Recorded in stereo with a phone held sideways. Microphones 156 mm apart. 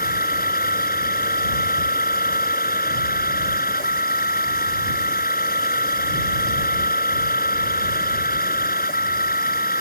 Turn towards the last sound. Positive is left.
turn(degrees=65)  # may be behind; listen again after turning